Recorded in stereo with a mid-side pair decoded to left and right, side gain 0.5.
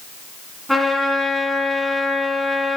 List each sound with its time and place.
0.7 s a trumpet: 5° left, 2.5 m